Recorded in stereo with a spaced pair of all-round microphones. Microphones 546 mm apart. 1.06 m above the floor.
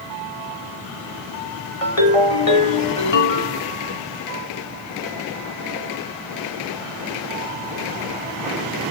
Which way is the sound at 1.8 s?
75° left (ahead or behind).